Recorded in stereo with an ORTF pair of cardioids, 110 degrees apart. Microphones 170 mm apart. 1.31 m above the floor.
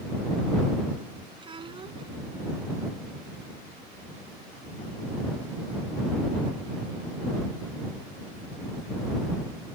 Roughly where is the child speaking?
Ahead right.